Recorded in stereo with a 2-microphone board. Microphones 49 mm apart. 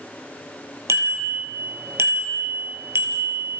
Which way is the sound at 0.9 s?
75° right (ahead or behind).